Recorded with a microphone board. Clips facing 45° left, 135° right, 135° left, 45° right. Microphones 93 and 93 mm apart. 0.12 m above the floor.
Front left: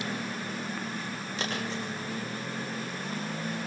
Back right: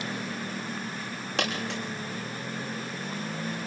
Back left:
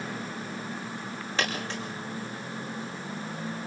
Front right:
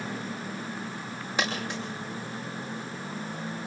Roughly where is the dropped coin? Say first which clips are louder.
Back right 3 dB, front right 1 dB; behind right.